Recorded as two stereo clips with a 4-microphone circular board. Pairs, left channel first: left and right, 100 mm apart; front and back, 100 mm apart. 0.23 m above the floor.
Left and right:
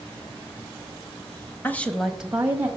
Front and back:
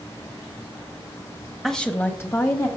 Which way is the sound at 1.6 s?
85° left.